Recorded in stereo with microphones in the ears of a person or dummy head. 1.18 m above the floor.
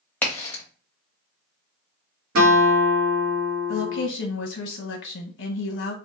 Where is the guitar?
80° right, 1.2 m.